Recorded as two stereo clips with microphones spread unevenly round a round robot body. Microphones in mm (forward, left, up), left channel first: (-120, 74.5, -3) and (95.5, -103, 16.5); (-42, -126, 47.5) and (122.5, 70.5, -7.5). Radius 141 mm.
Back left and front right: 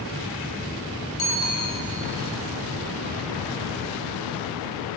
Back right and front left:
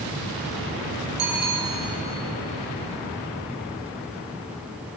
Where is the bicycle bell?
75° left, 3.5 m.